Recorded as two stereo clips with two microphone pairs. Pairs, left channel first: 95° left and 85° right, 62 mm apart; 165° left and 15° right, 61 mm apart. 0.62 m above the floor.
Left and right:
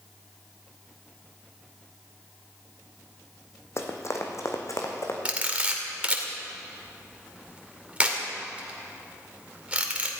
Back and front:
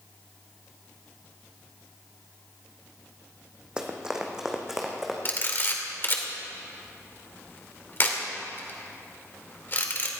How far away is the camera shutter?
About 2 m.